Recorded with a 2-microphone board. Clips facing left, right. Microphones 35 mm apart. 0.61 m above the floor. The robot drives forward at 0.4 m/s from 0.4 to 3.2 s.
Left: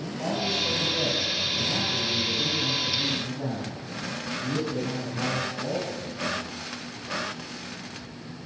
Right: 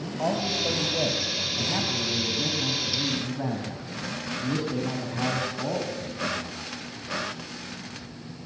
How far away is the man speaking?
About 4 m.